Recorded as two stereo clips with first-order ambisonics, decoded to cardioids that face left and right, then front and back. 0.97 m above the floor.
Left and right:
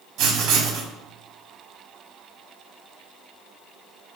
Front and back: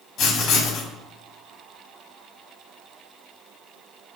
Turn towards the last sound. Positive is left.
turn(degrees=-55)